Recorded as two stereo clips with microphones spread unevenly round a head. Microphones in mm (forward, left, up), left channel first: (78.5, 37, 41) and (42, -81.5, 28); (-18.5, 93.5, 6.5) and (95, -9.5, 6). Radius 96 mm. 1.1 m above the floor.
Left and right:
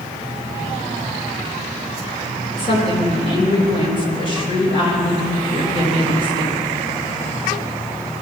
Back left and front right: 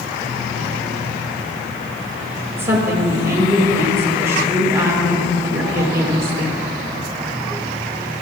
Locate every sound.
2.5 s a woman speaking: 30° left, 4.5 m